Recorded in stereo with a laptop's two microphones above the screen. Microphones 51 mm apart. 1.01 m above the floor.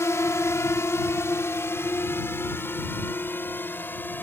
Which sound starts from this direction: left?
A drone, at 0.0 s.